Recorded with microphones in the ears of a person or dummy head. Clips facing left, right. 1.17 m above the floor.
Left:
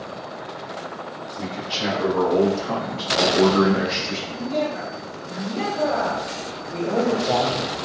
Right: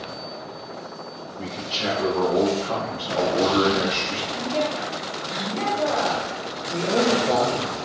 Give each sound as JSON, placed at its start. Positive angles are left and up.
{"t": 1.4, "sound": "a man speaking", "side_deg": 65, "distance_m": 1.4}
{"t": 4.3, "sound": "a woman speaking", "side_deg": 55, "distance_m": 1.8}
{"t": 6.7, "sound": "a man speaking", "side_deg": 5, "distance_m": 1.1}